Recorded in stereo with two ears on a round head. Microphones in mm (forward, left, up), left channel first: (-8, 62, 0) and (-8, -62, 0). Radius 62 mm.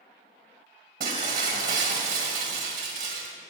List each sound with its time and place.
1.0 s breaking glass: 70° right (ahead or behind), 1.8 m